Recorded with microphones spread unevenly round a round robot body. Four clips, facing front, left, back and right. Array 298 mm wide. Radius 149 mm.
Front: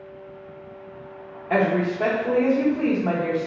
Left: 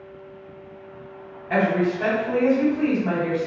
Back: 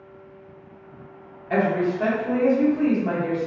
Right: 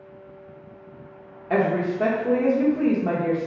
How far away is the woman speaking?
About 1.3 m.